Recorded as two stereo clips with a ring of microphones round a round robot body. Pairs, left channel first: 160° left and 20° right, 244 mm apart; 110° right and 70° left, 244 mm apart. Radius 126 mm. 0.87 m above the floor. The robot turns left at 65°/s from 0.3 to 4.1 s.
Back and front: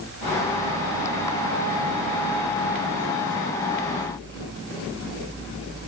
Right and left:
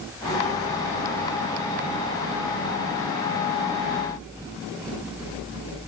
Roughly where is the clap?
No clap in this recording.